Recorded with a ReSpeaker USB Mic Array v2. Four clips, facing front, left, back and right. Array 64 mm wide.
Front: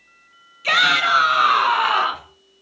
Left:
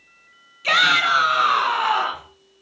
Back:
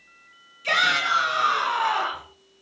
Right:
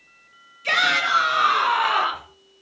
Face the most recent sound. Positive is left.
turn(degrees=-15)